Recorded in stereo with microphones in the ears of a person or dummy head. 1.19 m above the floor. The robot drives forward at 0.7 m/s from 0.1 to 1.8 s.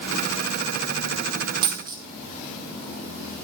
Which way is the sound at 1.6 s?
25° right (ahead or behind).